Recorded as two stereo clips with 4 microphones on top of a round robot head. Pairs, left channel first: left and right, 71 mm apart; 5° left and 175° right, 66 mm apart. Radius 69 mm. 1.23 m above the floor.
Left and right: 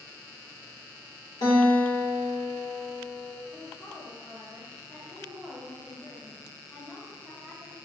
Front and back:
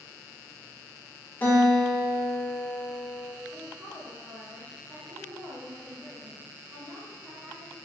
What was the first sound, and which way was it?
A guitar, 65° left.